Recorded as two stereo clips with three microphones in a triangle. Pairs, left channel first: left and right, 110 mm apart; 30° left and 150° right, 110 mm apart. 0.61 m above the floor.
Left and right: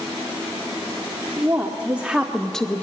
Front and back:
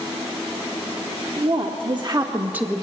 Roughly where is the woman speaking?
Behind.